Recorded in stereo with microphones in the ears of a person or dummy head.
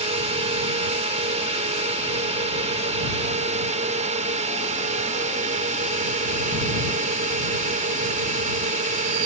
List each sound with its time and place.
0.0 s a drone: 40° right (ahead or behind); by 9.3 s 45° right (ahead or behind)